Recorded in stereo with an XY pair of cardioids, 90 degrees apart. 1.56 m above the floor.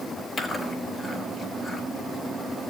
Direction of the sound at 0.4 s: 40° left.